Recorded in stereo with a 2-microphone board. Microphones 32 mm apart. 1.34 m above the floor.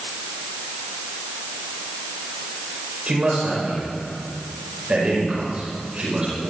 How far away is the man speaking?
About 5 m.